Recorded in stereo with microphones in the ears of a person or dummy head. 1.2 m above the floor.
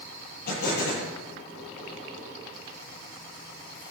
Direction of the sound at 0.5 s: 60° left (ahead or behind).